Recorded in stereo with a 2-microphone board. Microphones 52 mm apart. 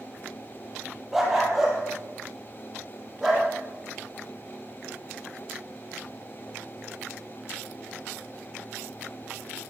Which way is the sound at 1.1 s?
5° right (ahead or behind).